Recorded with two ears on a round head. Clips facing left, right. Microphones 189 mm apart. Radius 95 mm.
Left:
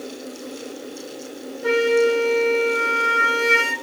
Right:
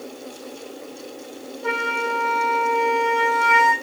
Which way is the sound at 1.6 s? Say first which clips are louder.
Left 11 dB; 15° left (ahead or behind).